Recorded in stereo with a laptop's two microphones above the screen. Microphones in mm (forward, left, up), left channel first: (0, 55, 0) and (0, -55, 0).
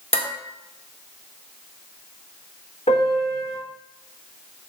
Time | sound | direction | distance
0.1 | dishes clattering | 70° left (ahead or behind) | 1.8 m
2.9 | a piano | 80° left | 3 m